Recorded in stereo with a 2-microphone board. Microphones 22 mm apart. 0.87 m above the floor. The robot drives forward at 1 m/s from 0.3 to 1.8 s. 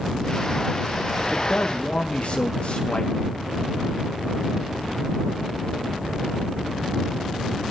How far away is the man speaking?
About 1.6 m.